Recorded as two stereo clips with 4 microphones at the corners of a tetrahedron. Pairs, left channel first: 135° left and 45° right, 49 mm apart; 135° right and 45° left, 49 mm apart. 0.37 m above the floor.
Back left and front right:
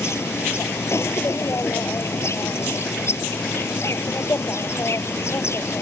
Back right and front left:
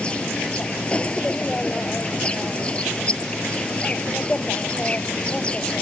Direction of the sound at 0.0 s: 155° left.